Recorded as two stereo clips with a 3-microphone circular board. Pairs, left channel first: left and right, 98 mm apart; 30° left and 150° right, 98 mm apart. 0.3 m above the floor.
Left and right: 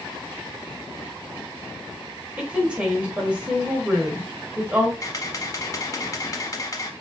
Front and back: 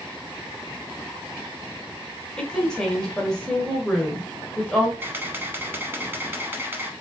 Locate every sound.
2.4 s a woman speaking: 35° right, 1.2 m
5.0 s a camera shutter: 145° left, 0.8 m